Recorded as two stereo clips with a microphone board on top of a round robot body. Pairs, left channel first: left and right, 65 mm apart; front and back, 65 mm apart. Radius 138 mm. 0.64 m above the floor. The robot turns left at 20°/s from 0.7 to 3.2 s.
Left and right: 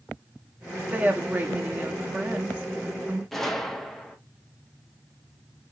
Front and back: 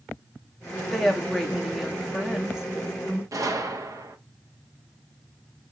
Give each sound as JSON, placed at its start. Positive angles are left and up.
{"t": 0.9, "sound": "a woman speaking", "azimuth_deg": -80, "distance_m": 1.1}
{"t": 3.3, "sound": "a gunshot", "azimuth_deg": 175, "distance_m": 0.9}